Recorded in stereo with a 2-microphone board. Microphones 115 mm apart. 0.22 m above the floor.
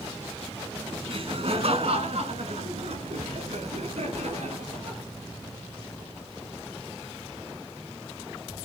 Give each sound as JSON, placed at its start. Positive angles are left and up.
{"t": 1.1, "sound": "laughter", "side_deg": -55, "distance_m": 1.8}